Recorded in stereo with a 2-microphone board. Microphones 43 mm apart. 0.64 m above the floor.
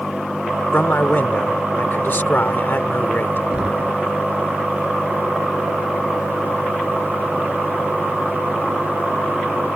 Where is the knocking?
20° right (ahead or behind).